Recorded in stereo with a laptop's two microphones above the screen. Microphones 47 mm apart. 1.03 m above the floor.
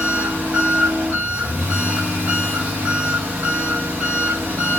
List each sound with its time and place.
0.0 s an engine running: 30° right (ahead or behind), 2 m